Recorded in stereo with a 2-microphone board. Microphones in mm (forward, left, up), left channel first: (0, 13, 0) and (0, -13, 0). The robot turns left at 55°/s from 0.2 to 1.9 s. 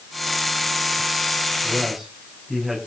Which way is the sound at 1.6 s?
5° right (ahead or behind).